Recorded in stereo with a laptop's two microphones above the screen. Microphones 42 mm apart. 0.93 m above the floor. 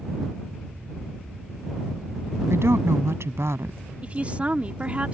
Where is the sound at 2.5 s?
85° right.